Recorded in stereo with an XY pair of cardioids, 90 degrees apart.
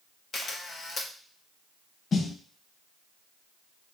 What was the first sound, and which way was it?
A camera shutter, 55° left.